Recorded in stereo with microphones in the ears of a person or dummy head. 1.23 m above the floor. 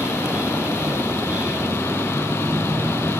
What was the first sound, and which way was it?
A vehicle, 5° right (ahead or behind).